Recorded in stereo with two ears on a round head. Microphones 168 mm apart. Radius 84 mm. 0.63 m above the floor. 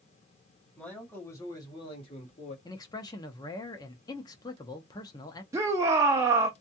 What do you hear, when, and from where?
0.8 s a man speaking: 5° left (ahead or behind), 1.4 m; by 2.5 s 35° left (ahead or behind), 1.2 m
2.6 s a man speaking: 20° left (ahead or behind), 0.6 m
5.5 s a shout: 15° right (ahead or behind), 0.5 m